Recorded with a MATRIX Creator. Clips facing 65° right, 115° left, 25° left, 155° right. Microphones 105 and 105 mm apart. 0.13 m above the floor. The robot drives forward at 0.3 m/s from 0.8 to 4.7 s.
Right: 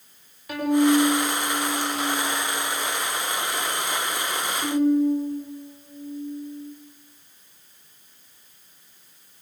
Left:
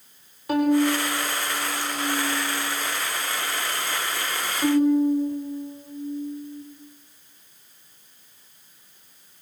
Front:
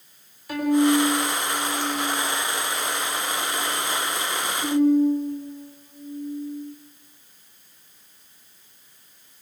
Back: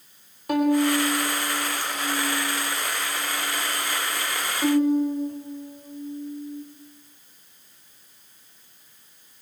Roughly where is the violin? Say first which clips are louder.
Right 1 dB, front 1 dB; behind.